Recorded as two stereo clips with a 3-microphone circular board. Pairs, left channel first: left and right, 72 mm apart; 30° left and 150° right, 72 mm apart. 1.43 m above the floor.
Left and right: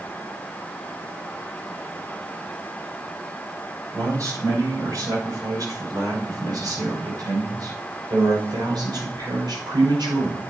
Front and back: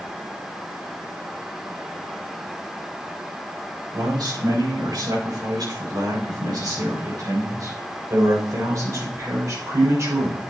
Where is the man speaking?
130° right, 7 m; by 10.4 s 100° right, 6 m.